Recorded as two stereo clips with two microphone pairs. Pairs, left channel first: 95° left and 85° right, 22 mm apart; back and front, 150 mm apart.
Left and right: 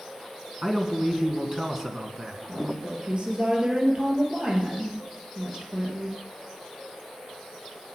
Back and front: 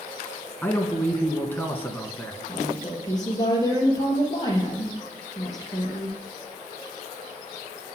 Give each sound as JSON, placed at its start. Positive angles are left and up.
{"t": 0.6, "sound": "a man speaking", "azimuth_deg": -120, "distance_m": 1.6}
{"t": 2.5, "sound": "a woman speaking", "azimuth_deg": -120, "distance_m": 3.0}